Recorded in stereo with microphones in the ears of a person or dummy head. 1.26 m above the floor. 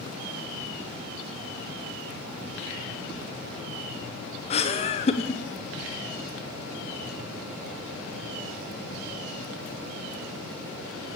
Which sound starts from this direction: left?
Laughter, at 4.5 s.